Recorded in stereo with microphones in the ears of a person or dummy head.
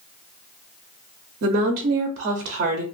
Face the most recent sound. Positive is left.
turn(degrees=-50)  # may be behind; listen again after turning